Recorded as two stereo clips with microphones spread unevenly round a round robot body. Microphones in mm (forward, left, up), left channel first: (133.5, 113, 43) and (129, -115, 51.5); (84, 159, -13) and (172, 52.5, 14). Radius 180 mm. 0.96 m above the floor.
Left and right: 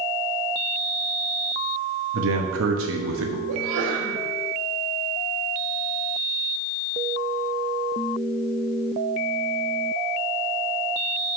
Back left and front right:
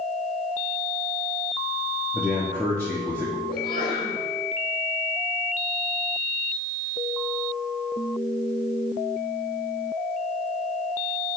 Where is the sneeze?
80° right, 4 m.